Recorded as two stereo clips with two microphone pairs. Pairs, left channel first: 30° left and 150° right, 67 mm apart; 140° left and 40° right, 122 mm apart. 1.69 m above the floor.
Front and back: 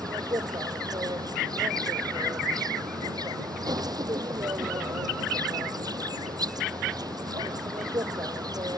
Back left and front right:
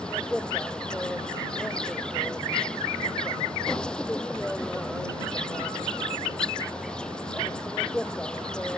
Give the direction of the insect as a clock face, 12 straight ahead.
5 o'clock.